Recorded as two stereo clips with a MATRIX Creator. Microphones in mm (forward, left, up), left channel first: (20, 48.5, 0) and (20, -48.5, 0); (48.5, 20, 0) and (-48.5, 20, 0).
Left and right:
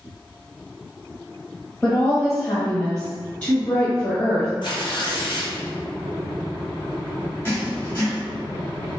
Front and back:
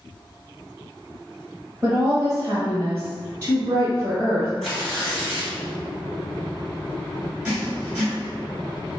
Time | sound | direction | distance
1.8 | a woman speaking | 155° left | 1.1 m
4.6 | tearing paper | 85° left | 1.3 m
7.5 | writing | 120° left | 1.6 m